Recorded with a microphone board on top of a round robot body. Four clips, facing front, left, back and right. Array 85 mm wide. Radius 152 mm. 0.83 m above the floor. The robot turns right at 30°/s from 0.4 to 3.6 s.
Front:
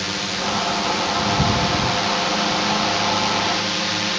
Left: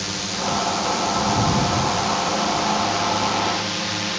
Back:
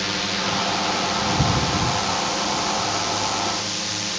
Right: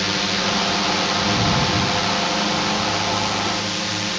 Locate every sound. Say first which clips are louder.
0.0 s a drone: right 4 dB, even; 95° right; by 4.2 s straight ahead